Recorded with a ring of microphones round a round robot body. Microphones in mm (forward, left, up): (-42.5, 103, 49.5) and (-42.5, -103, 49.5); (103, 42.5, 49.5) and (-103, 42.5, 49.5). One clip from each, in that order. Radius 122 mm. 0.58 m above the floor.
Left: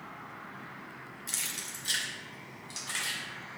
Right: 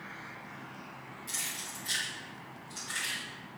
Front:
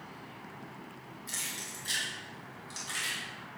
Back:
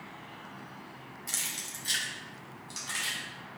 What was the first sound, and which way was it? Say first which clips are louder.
Keys jangling: left 1 dB, back 2 dB; 130° left.